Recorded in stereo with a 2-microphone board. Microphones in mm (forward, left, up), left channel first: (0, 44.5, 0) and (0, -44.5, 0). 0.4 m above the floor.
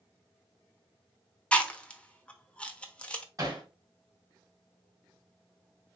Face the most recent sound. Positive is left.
turn(degrees=-40)  # may be behind; listen again after turning